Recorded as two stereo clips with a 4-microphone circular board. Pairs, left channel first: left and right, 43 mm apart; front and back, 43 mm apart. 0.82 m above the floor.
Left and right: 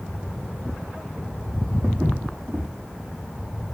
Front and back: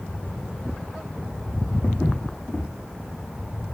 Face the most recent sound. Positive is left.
turn(degrees=-50)